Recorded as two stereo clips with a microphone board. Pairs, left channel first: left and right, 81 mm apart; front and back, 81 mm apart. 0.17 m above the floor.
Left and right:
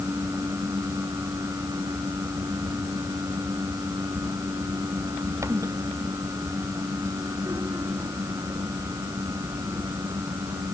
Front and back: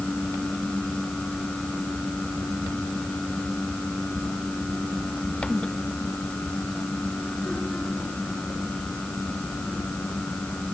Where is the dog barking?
I don't hear a dog barking.